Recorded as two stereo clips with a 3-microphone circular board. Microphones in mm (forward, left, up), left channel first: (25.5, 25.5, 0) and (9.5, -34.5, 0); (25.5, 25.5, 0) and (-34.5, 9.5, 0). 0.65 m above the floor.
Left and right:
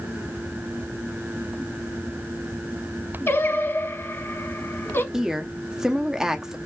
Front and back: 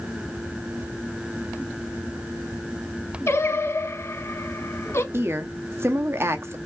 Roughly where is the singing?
Ahead left.